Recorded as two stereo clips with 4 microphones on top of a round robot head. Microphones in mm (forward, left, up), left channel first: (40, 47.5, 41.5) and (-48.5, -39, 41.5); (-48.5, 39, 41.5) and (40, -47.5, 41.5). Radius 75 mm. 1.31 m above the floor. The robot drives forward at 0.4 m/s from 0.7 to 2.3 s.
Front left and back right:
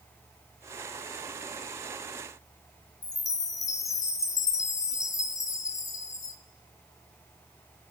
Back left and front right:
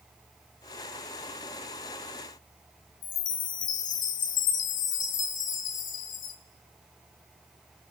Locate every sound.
3.0 s a chime: 110° left, 1.9 m